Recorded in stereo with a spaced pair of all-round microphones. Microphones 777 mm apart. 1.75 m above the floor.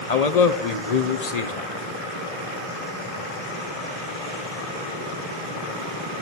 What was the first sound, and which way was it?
A man speaking, 55° left (ahead or behind).